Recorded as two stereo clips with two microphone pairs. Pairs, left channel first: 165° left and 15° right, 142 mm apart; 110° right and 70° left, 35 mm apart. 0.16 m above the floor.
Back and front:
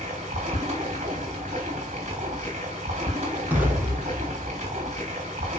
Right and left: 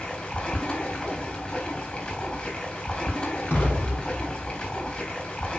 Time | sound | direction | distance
0.0 | running water | 55° right | 4 m
3.5 | an explosion | 95° right | 4.5 m